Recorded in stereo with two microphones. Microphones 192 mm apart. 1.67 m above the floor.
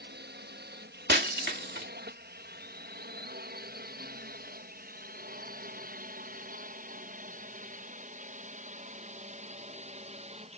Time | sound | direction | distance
0.0 | a drone | 65° right (ahead or behind) | ?
1.1 | breaking glass | 65° right (ahead or behind) | ?